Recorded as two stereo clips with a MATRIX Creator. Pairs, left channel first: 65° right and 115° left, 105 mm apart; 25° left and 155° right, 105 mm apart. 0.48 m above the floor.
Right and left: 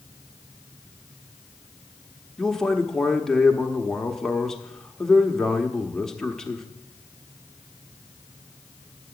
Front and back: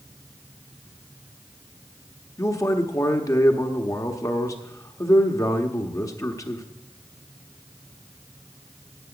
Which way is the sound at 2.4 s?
15° left.